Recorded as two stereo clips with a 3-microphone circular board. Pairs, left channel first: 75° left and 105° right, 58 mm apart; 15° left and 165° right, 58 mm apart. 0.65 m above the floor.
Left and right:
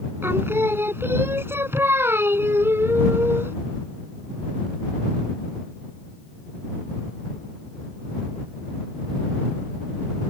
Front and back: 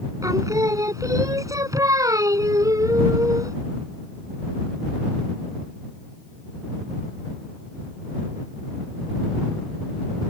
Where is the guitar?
No guitar in this recording.